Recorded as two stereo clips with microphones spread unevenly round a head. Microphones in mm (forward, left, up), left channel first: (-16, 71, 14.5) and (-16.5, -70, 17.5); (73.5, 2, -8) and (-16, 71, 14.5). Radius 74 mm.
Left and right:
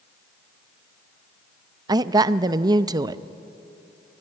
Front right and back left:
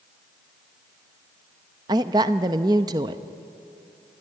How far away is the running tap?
I don't hear a running tap.